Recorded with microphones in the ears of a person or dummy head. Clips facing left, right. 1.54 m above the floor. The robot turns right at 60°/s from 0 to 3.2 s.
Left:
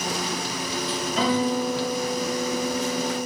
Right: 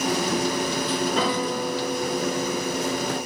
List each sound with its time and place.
1.2 s a guitar: 120° right, 4.5 m; by 3.3 s straight ahead, 4.5 m